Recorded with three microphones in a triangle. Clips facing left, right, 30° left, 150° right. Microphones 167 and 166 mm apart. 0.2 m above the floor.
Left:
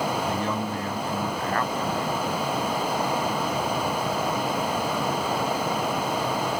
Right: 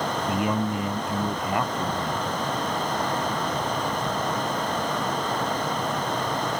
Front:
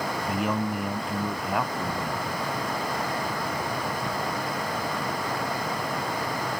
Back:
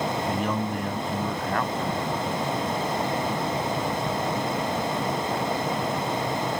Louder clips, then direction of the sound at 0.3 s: Right 2 dB, even; 45° right.